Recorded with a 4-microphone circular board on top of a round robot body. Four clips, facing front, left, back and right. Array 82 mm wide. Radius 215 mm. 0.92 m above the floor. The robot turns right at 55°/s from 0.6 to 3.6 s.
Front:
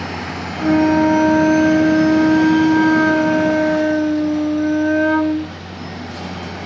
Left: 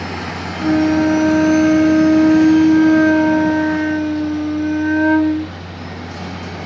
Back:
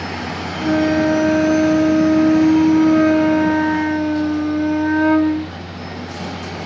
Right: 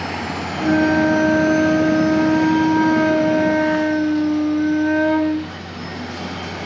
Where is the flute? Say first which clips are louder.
Left 2 dB, front 3 dB; 15° left, 1.0 m; by 5.5 s straight behind, 1.0 m.